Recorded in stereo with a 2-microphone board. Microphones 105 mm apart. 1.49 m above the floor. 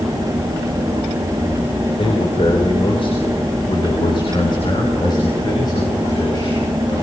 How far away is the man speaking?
About 4 m.